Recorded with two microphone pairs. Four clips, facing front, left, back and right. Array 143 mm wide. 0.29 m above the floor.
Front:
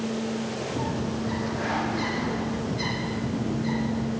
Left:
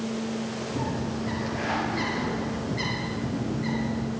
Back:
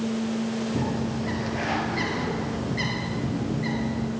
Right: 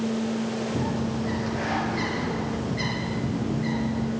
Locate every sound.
0.8 s a bird: 175° right, 4 m